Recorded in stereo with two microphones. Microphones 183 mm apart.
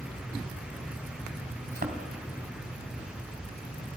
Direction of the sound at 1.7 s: 60° right (ahead or behind).